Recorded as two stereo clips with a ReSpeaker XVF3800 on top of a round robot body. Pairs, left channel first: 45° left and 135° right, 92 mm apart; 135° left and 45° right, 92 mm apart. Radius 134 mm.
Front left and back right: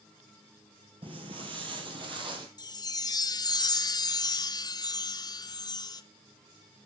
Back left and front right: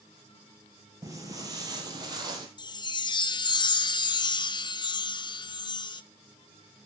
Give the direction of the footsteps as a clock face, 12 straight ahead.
3 o'clock.